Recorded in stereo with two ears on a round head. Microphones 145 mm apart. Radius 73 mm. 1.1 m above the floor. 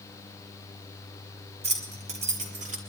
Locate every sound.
1.6 s keys jangling: 45° right (ahead or behind), 5 m; by 2.8 s 55° right (ahead or behind), 4 m